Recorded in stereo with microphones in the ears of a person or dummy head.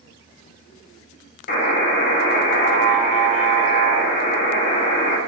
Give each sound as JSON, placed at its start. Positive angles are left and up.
{"t": 1.5, "sound": "a buzzer", "side_deg": 50, "distance_m": 0.7}